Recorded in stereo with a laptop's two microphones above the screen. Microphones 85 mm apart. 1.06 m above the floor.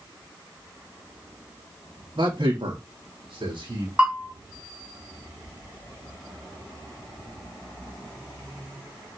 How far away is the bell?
About 4 m.